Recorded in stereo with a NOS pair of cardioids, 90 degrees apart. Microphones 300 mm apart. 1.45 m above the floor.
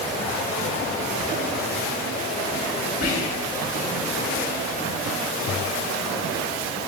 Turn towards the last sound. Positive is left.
turn(degrees=60)